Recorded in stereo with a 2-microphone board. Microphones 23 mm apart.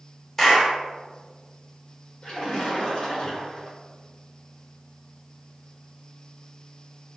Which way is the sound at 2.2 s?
45° left (ahead or behind).